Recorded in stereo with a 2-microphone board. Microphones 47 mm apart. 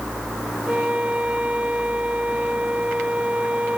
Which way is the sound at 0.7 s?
25° right (ahead or behind).